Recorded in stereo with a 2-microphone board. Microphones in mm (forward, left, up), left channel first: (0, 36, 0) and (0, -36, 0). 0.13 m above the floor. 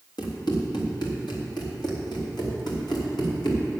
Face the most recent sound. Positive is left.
turn(degrees=80)